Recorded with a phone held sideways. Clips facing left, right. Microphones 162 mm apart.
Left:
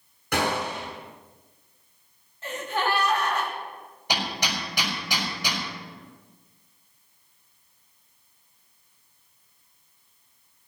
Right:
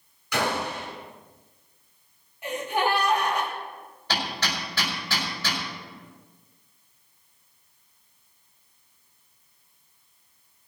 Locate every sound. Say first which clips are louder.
0.3 s a gunshot: left 1 dB; 55° left (ahead or behind), 7 m
2.4 s a gasp: right 2 dB; 15° right (ahead or behind), 3 m
4.1 s hammering: left 1 dB; 15° left (ahead or behind), 5 m